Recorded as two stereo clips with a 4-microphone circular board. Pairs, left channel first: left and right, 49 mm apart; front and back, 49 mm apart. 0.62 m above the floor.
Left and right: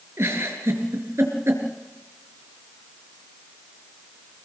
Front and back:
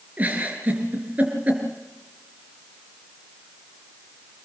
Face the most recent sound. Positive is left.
turn(degrees=-120)